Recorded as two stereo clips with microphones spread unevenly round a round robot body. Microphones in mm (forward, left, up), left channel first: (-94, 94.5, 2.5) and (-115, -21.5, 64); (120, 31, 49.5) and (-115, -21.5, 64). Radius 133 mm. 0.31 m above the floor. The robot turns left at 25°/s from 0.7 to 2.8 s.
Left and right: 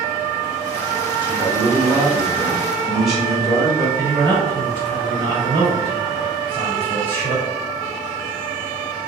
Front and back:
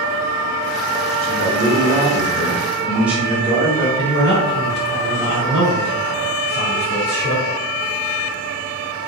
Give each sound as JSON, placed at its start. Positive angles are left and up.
{"t": 1.2, "sound": "a man speaking", "azimuth_deg": 150, "distance_m": 1.1}
{"t": 4.0, "sound": "a man speaking", "azimuth_deg": 60, "distance_m": 1.9}